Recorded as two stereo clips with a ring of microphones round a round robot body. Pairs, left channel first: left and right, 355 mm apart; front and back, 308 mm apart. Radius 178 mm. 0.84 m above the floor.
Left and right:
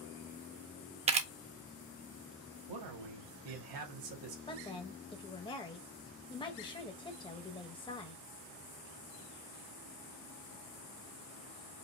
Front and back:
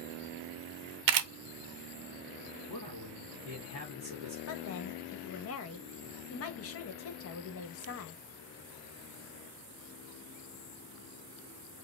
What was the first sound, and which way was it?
A camera shutter, 165° right.